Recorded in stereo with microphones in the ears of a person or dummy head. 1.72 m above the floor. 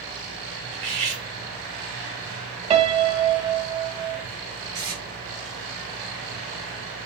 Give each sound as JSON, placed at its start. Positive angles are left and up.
{"t": 0.7, "sound": "cutlery clinking", "side_deg": -35, "distance_m": 2.5}
{"t": 2.7, "sound": "a piano", "side_deg": -30, "distance_m": 0.6}
{"t": 4.7, "sound": "tape being pulled", "side_deg": -15, "distance_m": 2.5}